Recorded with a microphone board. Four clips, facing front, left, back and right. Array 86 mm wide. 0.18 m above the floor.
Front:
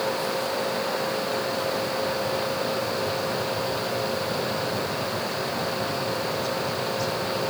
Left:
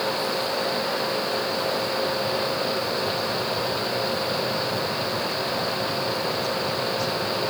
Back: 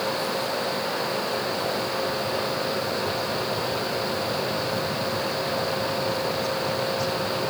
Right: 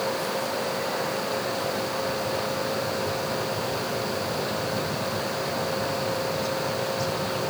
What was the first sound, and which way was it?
Only background noise.